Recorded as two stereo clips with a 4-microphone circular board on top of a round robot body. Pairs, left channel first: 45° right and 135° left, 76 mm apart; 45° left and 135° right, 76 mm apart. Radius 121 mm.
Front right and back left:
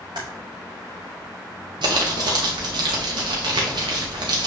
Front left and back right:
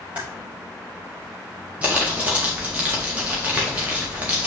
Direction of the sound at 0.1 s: 155° left.